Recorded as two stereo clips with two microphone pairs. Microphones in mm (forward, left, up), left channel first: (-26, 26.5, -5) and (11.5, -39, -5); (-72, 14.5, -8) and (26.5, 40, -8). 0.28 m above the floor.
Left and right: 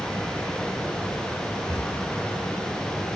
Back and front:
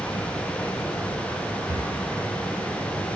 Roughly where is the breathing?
Left.